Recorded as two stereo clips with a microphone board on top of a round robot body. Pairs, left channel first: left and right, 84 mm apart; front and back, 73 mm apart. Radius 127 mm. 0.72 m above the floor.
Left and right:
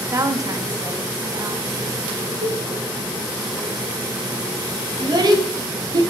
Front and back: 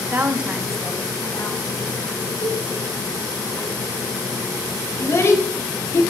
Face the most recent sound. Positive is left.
turn(degrees=-55)